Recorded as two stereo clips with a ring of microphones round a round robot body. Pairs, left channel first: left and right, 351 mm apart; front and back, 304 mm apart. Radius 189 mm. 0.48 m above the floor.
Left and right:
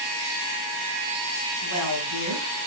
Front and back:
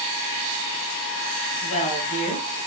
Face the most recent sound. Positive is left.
turn(degrees=65)